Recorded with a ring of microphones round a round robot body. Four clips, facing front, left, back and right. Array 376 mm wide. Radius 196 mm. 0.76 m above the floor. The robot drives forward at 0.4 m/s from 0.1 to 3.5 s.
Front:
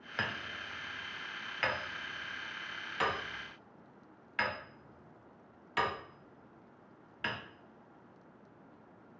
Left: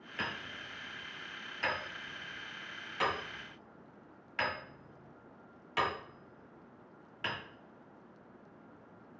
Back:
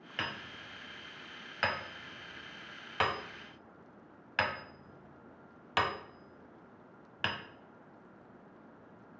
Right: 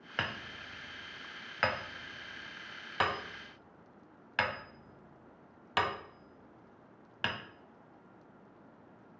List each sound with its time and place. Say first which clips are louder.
0.2 s hammering: right 2 dB, front 2 dB; 70° right, 1.2 m; by 7.4 s 130° right, 1.5 m